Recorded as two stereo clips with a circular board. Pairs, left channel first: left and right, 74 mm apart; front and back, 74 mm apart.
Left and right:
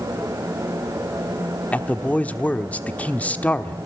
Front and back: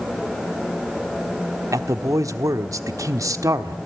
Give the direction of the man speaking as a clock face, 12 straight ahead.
7 o'clock.